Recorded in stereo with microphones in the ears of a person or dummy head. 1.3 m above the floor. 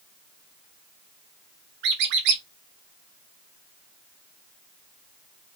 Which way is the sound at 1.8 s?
60° right (ahead or behind).